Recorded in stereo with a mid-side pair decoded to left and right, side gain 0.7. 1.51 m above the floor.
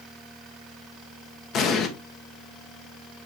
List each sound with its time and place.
1.5 s an explosion: 50° left, 1.5 m